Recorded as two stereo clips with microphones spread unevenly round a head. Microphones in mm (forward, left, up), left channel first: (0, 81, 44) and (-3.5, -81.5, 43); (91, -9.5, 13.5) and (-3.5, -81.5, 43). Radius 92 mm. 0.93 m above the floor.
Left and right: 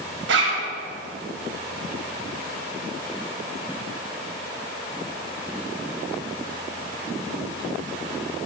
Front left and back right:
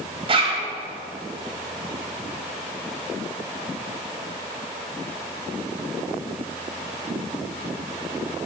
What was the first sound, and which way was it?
A zipper, 100° right.